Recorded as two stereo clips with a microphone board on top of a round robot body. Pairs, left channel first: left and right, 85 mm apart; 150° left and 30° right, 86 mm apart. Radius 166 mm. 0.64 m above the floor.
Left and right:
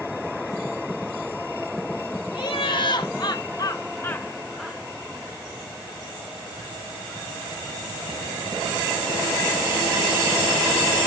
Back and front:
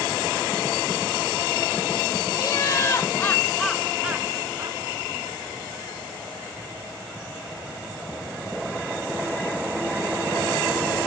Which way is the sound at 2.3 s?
105° left.